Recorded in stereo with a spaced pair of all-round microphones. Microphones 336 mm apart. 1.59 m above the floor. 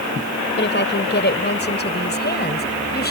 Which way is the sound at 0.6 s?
35° left (ahead or behind).